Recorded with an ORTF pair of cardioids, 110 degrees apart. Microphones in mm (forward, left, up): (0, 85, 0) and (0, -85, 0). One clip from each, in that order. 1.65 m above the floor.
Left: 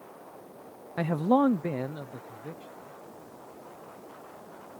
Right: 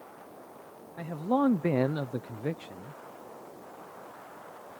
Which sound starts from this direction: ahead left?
A man speaking, at 1.0 s.